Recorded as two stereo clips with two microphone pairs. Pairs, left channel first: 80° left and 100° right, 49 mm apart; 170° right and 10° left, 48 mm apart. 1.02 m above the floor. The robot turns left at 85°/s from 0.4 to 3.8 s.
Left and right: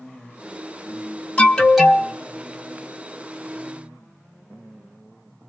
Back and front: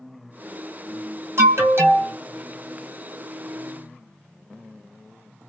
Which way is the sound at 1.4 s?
25° left.